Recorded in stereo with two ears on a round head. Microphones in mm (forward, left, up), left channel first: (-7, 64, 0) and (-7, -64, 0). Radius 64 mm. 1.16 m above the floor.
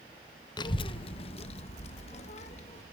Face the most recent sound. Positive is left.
turn(degrees=50)  # may be behind; listen again after turning